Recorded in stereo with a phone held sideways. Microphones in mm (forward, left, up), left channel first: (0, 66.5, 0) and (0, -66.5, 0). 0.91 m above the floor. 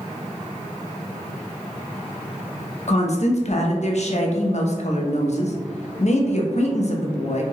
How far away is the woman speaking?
About 0.6 m.